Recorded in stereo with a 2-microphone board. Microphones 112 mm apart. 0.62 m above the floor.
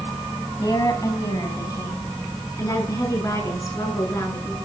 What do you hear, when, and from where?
0.6 s a woman speaking: 35° left (ahead or behind), 3.5 m; by 4.5 s 30° left (ahead or behind), 6.5 m